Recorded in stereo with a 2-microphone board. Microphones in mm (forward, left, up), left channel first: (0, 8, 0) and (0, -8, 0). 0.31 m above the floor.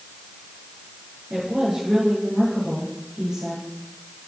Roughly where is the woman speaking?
Right.